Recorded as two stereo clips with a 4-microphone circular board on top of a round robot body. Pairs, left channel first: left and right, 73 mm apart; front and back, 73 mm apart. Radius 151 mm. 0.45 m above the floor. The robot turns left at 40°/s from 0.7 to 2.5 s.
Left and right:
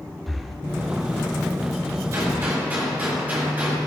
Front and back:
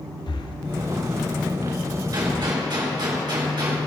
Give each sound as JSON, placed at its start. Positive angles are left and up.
{"t": 0.3, "sound": "breathing", "azimuth_deg": 0, "distance_m": 0.8}
{"t": 2.1, "sound": "a gunshot", "azimuth_deg": -145, "distance_m": 4.5}